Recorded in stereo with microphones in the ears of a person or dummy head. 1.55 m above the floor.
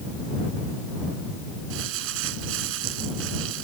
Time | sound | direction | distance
1.7 | crumpling | 85° right | ?